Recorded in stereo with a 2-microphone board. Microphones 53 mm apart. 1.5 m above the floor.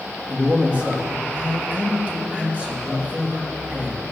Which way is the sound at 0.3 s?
25° right (ahead or behind).